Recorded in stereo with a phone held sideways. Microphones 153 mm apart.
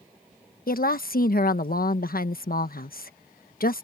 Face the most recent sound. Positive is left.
turn(degrees=70)  # may be behind; listen again after turning